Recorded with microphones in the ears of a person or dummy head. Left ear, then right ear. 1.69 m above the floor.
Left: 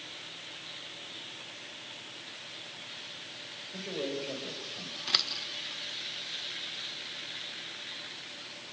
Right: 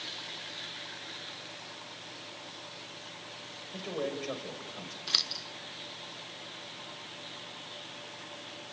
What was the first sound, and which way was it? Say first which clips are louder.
A man speaking: even; 45° right (ahead or behind).